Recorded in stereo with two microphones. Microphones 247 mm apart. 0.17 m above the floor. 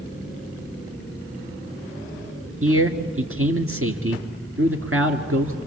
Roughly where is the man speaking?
Right.